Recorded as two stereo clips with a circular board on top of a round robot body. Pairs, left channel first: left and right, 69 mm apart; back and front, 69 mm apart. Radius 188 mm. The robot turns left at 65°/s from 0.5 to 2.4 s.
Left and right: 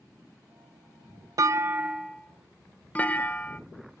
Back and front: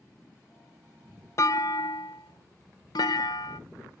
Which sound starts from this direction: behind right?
A clunk, at 1.4 s.